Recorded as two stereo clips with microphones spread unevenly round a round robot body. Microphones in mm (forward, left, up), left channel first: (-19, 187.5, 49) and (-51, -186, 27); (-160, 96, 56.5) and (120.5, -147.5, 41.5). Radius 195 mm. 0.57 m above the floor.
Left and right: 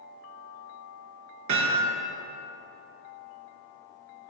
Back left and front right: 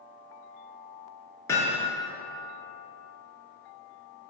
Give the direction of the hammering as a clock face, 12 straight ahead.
5 o'clock.